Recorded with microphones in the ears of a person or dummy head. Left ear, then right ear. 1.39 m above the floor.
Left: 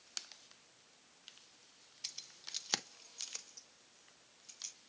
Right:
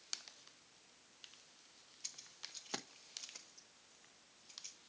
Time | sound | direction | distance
2.0 | keys jangling | 20° left (ahead or behind) | 0.8 m